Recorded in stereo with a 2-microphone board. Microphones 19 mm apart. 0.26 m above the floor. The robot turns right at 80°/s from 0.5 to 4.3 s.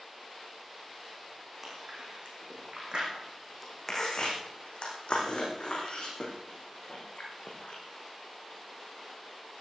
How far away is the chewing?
About 5.5 m.